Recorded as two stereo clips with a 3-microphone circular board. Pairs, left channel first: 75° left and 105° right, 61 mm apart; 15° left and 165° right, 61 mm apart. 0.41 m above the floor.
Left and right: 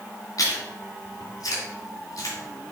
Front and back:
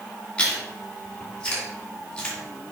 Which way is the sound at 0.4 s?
90° left.